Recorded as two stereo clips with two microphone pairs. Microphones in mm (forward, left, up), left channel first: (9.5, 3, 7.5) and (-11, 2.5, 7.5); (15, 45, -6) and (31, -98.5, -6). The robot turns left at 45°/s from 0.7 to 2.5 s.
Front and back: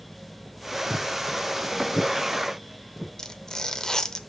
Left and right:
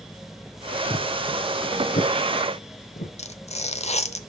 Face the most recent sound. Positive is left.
turn(degrees=55)